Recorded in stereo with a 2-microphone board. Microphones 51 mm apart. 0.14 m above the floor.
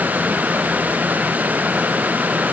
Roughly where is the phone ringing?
I don't hear a phone ringing.